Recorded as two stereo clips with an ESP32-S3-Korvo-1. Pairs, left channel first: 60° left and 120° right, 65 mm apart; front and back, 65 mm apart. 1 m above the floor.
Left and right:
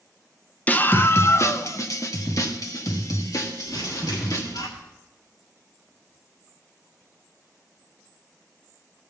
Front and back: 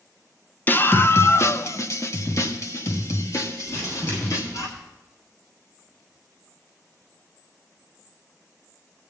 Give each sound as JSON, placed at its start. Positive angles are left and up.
{"t": 0.7, "sound": "a scream", "azimuth_deg": 25, "distance_m": 0.6}
{"t": 3.7, "sound": "crumpling", "azimuth_deg": 55, "distance_m": 7.5}